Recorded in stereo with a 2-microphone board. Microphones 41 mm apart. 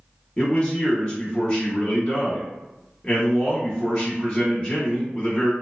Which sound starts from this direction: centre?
A man speaking, at 0.4 s.